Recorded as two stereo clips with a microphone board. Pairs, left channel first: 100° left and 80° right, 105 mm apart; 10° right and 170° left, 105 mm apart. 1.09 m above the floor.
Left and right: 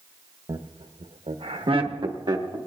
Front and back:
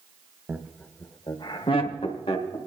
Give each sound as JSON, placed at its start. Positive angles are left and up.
{"t": 0.5, "sound": "laughter", "azimuth_deg": -115, "distance_m": 0.7}